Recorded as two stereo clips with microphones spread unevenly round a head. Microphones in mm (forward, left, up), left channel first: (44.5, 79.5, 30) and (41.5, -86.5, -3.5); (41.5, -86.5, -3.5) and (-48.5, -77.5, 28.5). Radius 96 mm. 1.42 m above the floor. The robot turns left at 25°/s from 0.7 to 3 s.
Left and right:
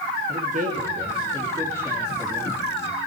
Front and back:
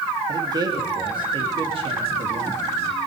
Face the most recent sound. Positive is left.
turn(degrees=160)